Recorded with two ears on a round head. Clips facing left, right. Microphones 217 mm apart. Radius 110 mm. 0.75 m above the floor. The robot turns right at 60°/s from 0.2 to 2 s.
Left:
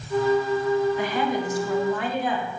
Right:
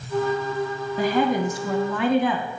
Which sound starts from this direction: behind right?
A woman speaking, at 1.0 s.